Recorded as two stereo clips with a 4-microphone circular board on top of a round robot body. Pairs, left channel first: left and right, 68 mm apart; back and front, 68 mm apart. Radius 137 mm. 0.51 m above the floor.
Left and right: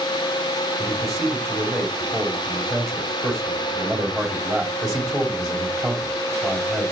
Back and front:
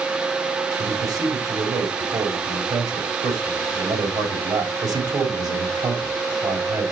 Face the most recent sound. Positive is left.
turn(degrees=-5)